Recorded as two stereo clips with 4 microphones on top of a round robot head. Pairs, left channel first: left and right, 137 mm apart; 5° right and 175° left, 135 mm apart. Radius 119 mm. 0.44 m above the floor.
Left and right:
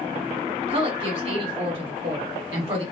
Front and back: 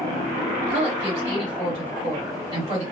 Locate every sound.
0.7 s a woman speaking: 140° right, 2.0 m